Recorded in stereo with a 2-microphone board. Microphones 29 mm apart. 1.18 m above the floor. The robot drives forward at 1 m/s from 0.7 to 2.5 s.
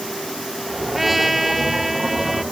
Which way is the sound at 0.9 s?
5° right (ahead or behind).